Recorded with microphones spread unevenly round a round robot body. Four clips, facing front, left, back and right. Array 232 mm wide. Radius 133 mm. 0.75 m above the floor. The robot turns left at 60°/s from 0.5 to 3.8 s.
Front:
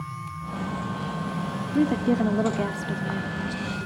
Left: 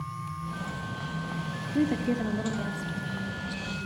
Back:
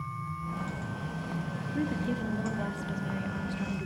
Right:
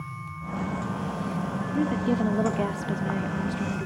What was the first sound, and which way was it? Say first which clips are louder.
A woman speaking: right 1 dB, front 10 dB; 10° left.